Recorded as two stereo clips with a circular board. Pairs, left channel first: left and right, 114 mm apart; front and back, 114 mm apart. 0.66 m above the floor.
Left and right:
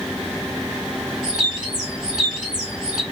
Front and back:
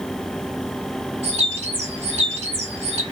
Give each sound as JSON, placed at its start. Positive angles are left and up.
{"t": 1.2, "sound": "a bird", "azimuth_deg": -175, "distance_m": 2.5}